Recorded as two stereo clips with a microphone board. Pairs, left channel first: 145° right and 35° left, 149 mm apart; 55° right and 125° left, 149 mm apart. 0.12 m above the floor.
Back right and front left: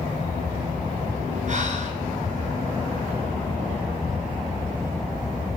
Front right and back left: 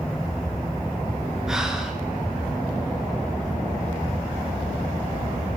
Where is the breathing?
40° left, 1.7 m.